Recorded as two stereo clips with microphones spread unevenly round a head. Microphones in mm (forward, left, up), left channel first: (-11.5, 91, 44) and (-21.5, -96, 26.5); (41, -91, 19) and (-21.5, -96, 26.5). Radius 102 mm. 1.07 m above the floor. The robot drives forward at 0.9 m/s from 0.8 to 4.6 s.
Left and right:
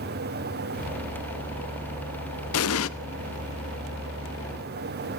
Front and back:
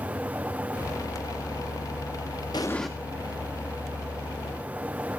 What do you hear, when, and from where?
2.5 s an explosion: 75° left, 0.8 m; by 2.9 s 100° left, 0.8 m